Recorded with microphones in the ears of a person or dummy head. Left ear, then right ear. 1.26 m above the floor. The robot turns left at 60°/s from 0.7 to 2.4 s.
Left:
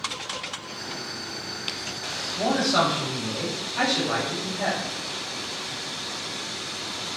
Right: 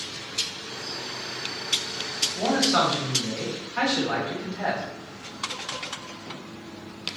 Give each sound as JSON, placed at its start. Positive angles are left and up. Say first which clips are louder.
{"t": 2.4, "sound": "a man speaking", "louder": "left 1 dB", "side_deg": -85, "distance_m": 1.3}